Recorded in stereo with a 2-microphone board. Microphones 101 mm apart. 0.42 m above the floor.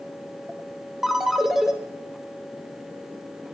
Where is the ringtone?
5° right (ahead or behind), 0.9 m.